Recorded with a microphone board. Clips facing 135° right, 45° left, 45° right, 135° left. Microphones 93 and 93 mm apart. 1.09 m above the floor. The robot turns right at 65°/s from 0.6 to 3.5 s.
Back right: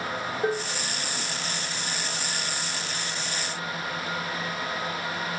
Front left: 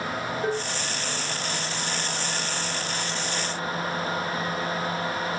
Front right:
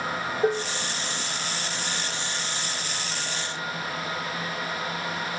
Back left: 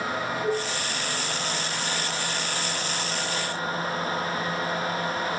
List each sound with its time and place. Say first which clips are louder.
0.4 s dishes clattering: back right 2 dB, front right 5 dB; 60° right, 3 m; by 0.7 s 50° right, 3 m